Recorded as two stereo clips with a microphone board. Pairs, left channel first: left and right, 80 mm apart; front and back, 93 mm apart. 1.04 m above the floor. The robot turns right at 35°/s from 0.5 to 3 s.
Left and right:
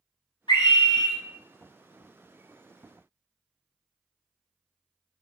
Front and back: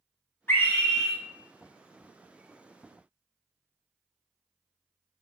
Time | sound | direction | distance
0.5 | a scream | 65° left | 0.6 m